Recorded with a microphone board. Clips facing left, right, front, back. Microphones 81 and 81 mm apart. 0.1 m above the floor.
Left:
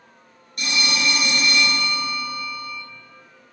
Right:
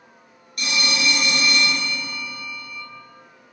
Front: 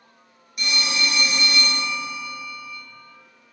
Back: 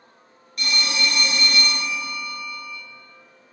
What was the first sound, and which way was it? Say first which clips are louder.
A phone ringing: even, even; 65° left.